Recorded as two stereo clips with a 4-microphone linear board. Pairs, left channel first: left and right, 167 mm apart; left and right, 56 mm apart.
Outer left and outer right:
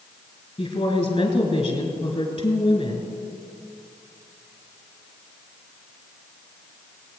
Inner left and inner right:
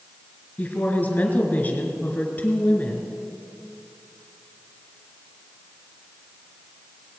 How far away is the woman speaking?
About 2.5 m.